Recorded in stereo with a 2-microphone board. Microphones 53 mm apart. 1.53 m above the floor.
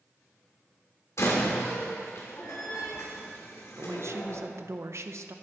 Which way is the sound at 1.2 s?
65° left (ahead or behind).